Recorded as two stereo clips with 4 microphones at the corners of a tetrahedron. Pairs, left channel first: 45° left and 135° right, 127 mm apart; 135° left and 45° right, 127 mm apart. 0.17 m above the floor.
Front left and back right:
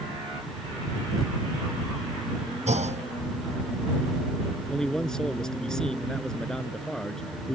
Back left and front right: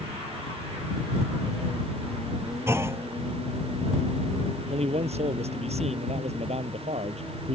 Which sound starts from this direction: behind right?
A clunk, at 2.7 s.